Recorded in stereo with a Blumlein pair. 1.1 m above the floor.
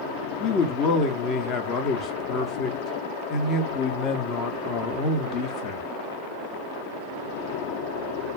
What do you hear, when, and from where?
0.4 s a man speaking: 30° left, 0.7 m